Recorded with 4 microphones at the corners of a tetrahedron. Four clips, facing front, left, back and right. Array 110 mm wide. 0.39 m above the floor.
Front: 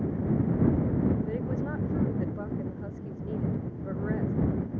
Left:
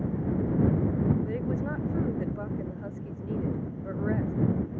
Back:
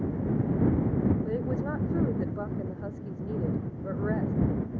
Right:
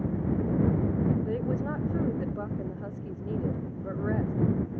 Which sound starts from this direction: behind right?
A woman speaking, at 1.2 s.